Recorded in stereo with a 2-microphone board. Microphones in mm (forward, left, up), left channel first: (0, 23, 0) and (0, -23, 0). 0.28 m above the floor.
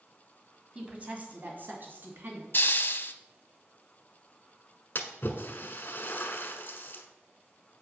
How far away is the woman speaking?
About 1.9 m.